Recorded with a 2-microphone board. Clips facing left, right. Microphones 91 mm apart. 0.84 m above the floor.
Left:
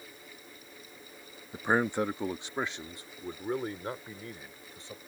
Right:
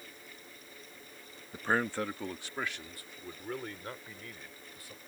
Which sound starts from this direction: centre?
A man speaking, at 1.5 s.